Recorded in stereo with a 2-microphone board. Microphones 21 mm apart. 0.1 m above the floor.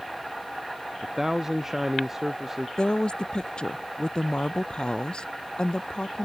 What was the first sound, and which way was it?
A man speaking, 20° right (ahead or behind).